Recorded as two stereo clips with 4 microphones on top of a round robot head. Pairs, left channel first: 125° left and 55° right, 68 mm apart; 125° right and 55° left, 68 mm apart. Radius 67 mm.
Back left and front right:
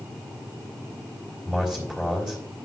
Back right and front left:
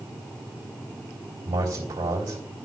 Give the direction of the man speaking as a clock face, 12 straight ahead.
11 o'clock.